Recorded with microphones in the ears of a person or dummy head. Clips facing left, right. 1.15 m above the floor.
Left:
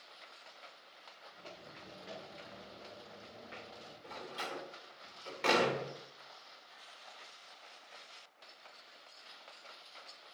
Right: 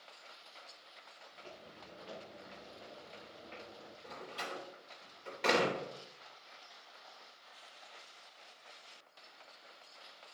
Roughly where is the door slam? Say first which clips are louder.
Left 1 dB; centre.